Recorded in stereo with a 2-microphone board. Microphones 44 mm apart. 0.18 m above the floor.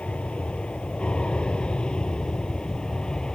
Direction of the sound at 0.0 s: 25° left (ahead or behind).